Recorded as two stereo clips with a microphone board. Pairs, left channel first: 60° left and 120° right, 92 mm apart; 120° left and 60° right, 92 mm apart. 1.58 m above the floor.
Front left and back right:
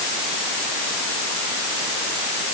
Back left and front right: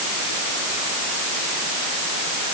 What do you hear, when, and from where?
Only background noise.